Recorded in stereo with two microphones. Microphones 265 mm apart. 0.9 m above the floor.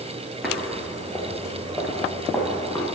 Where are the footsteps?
Centre (ahead or behind), 1.0 m; by 2.9 s 15° left (ahead or behind), 3 m.